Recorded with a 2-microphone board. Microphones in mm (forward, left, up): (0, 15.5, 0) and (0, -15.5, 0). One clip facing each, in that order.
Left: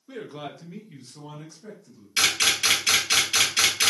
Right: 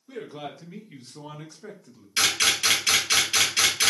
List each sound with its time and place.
0.1 s a man speaking: 15° left (ahead or behind), 0.9 m; by 2.1 s 50° right (ahead or behind), 1.0 m
2.2 s a camera shutter: 10° left (ahead or behind), 1.9 m